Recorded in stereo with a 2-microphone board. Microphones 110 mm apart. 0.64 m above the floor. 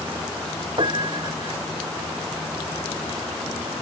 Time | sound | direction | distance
0.8 | a piano | 50° right (ahead or behind) | ?